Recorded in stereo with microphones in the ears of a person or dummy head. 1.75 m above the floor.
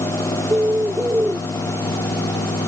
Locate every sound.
0.5 s a bird: 5° right (ahead or behind)